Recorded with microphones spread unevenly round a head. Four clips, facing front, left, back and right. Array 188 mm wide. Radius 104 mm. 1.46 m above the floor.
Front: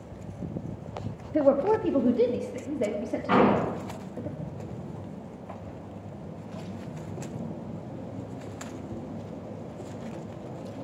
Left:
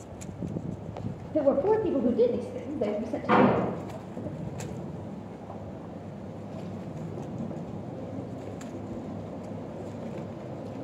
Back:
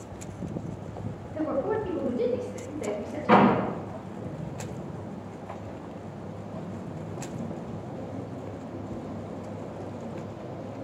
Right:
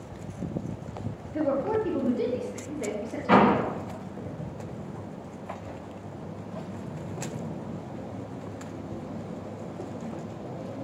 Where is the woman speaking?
45° left, 1.5 m; by 4.3 s 55° left, 3 m.